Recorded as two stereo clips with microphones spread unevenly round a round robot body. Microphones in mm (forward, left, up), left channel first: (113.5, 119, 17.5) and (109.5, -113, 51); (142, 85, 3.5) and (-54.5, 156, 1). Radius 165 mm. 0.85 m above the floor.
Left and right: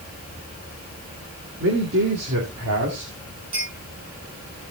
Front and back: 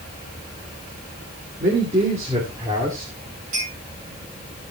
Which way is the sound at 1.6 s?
140° right.